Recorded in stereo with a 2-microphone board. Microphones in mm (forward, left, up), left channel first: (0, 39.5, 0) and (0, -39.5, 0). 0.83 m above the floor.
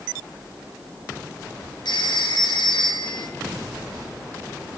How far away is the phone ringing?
About 7 m.